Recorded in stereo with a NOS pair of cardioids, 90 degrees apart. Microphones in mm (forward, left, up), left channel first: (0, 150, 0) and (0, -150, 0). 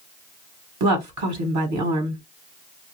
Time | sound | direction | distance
0.8 | a woman speaking | 65° right | 1.2 m